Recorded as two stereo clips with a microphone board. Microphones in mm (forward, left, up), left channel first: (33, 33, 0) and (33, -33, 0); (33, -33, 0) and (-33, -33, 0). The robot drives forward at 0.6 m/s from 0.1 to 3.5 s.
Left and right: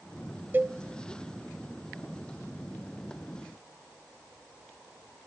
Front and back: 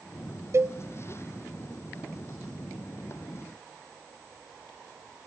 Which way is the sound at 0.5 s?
145° right.